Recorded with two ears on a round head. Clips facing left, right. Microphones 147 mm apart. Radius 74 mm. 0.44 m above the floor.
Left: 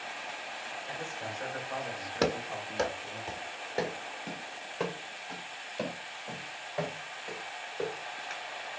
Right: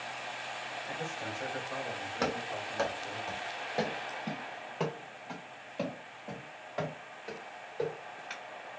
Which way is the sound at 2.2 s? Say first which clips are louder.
Left 4 dB; 35° left (ahead or behind).